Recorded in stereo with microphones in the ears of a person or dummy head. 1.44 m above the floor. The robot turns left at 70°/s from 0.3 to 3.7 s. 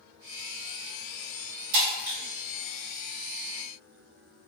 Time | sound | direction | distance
1.7 | breaking glass | 65° right (ahead or behind) | 1.2 m